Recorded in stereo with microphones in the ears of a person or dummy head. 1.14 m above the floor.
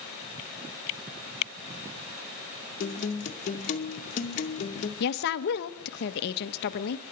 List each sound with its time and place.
2.8 s a guitar: 40° left (ahead or behind), 1.9 m
5.0 s a woman speaking: 55° left (ahead or behind), 1.3 m